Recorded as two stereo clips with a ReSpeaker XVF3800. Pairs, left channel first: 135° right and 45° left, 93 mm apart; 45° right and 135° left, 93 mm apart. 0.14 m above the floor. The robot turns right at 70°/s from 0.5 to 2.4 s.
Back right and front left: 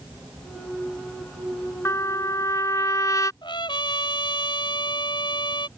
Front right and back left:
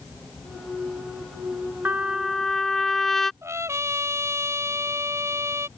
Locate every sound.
1.9 s a trumpet: 170° right; by 3.3 s 130° right
3.4 s a trumpet: 165° right